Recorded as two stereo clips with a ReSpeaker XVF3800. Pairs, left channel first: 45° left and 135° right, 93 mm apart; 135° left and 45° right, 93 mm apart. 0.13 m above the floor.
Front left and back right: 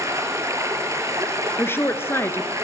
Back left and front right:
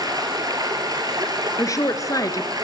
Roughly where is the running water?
Right.